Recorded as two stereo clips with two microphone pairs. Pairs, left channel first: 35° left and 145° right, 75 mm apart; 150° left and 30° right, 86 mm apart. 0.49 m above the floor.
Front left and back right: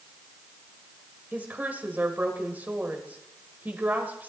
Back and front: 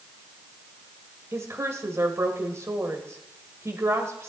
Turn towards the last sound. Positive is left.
turn(degrees=-80)